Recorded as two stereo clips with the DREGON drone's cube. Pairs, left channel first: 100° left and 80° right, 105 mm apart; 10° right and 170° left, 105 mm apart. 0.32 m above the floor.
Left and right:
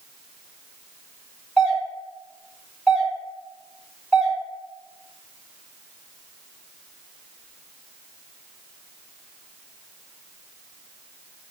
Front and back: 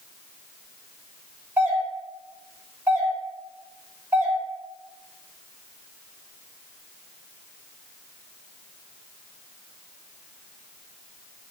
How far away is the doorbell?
About 1.4 m.